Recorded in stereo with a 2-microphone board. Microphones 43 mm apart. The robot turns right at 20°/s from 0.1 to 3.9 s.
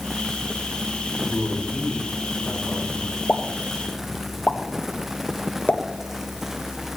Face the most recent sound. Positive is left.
turn(degrees=30)  # may be behind; listen again after turning